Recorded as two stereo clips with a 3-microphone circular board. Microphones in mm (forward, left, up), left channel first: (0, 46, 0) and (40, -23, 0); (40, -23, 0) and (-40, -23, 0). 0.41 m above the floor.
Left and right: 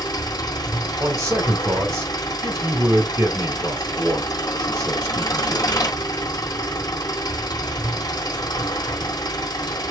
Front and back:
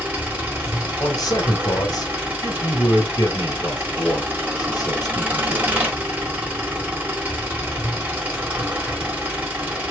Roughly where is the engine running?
Behind left.